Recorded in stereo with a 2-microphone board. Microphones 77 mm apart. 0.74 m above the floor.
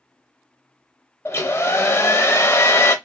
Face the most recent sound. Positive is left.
turn(degrees=35)  # may be behind; listen again after turning